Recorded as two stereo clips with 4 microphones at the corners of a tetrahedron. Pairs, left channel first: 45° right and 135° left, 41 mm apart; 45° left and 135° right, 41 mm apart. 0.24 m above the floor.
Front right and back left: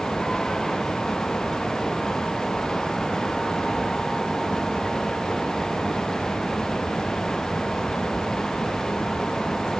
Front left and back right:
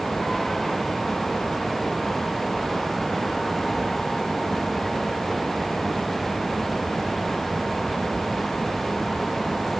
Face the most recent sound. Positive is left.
No sound to turn to.